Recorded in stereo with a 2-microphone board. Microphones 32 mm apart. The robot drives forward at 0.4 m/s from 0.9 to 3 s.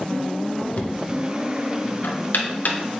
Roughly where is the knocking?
Left.